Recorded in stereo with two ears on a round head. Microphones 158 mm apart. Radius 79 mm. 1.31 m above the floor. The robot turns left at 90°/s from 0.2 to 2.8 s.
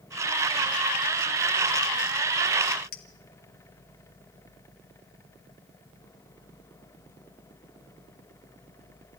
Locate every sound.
2.9 s a clink: 60° left (ahead or behind), 1.5 m